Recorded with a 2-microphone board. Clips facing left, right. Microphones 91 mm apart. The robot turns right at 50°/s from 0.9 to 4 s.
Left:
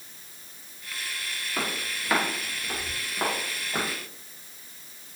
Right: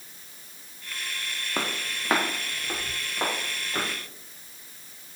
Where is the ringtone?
I don't hear a ringtone.